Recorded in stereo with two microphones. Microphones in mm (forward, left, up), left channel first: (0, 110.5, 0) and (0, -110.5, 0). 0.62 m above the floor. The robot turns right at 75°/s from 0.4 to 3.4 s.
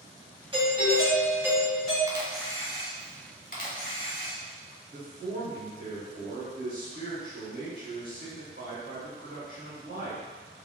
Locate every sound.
0.5 s a doorbell: 25° right (ahead or behind), 1.5 m; by 2.0 s 5° left (ahead or behind), 1.5 m
2.1 s a camera shutter: 25° right, 0.8 m; by 4.4 s 75° left, 0.8 m
4.9 s a man speaking: 35° right (ahead or behind), 1.5 m